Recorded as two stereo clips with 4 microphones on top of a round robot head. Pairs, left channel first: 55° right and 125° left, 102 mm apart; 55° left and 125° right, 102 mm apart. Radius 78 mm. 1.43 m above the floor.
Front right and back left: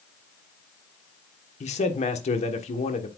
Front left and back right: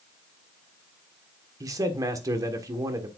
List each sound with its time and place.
1.6 s a man speaking: 65° right, 1.3 m